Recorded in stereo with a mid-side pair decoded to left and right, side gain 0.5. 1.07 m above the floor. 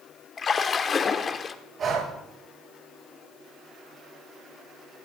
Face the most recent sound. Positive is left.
turn(degrees=-45)